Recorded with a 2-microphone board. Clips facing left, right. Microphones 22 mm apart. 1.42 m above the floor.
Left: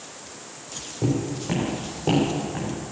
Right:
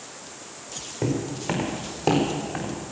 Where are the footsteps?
70° right (ahead or behind), 5 m; by 2.8 s 60° right (ahead or behind), 4 m.